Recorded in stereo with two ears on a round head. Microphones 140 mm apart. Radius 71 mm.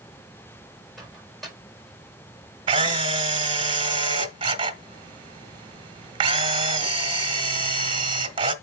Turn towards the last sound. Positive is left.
turn(degrees=-35)  # may be behind; listen again after turning